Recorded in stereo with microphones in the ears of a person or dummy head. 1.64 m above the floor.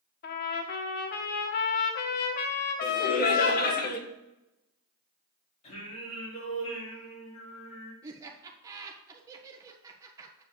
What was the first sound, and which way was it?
A trumpet, 55° left (ahead or behind).